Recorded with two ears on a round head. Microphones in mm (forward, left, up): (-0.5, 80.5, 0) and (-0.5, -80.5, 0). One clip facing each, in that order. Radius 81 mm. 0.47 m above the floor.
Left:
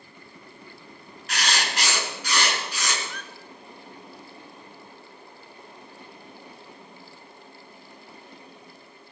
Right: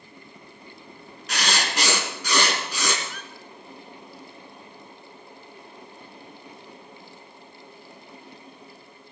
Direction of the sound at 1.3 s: 85° right.